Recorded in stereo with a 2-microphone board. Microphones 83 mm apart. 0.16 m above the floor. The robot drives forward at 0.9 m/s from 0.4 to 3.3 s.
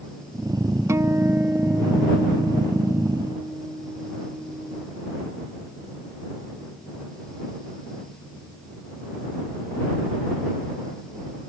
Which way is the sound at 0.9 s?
40° right (ahead or behind).